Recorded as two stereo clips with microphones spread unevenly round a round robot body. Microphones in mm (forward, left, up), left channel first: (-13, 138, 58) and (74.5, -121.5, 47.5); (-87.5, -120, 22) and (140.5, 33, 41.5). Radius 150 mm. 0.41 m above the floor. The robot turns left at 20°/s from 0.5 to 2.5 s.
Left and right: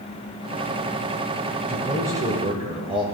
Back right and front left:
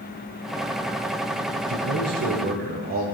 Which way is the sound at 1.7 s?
15° left.